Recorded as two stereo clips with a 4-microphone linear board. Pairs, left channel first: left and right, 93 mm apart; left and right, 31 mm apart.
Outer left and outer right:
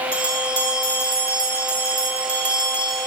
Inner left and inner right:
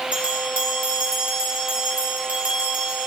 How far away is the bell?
About 1.9 m.